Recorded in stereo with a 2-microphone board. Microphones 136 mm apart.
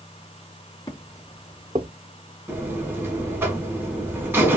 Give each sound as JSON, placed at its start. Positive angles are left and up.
{"t": 0.9, "sound": "footsteps", "side_deg": 30, "distance_m": 1.2}
{"t": 2.5, "sound": "a buzzer", "side_deg": -15, "distance_m": 1.1}